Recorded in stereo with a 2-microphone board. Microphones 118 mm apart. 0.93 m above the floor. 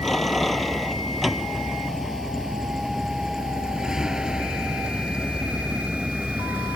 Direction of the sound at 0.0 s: Centre (ahead or behind).